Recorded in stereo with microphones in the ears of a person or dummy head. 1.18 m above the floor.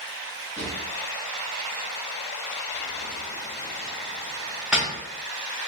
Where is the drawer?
5° right (ahead or behind), 0.8 m.